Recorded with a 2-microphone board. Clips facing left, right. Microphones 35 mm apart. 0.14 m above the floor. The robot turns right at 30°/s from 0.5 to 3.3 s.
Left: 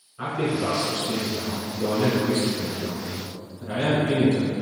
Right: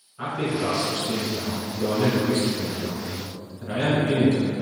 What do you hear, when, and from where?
0.2 s a man speaking: 170° left, 1.4 m; by 4.5 s 110° right, 1.4 m